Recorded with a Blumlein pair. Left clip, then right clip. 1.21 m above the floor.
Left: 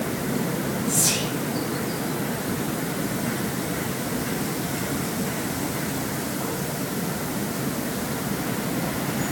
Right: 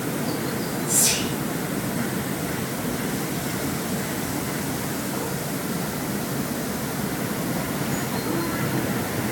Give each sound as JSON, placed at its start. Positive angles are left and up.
{"t": 0.9, "sound": "whispering", "azimuth_deg": -45, "distance_m": 0.9}